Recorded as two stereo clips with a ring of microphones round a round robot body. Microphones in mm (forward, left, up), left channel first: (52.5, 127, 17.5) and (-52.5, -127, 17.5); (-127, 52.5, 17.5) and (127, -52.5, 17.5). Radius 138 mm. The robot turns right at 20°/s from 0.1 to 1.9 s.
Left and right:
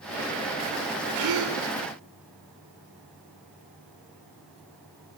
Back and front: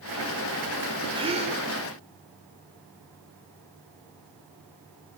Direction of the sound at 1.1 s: 95° right.